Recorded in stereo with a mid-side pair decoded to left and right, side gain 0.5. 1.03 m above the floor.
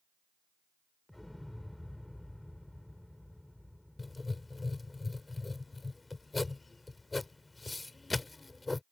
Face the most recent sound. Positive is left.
turn(degrees=20)